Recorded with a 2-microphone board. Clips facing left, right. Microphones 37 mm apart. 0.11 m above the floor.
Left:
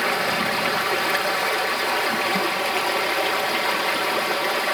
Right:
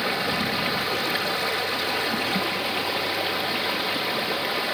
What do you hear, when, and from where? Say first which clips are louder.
0.0 s running water: left 3 dB; 80° left, 4 m